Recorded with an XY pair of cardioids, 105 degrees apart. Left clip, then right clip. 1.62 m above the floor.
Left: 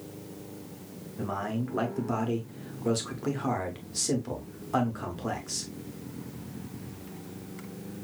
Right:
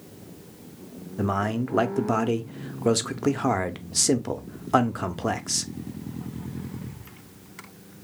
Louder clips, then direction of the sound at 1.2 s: Right 7 dB; 55° right.